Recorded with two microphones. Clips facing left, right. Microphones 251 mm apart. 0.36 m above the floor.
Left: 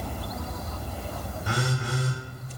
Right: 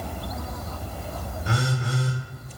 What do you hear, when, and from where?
1.4 s a phone buzzing: 25° right (ahead or behind), 1.0 m